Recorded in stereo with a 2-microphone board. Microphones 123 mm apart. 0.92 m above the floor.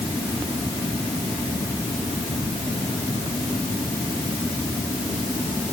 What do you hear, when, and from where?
Only background noise.